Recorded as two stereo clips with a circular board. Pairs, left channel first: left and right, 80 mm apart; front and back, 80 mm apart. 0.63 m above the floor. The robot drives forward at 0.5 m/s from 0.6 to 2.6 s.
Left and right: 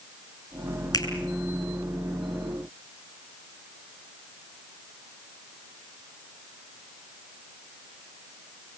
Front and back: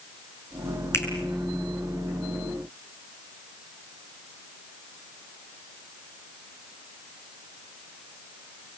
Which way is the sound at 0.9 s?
55° left.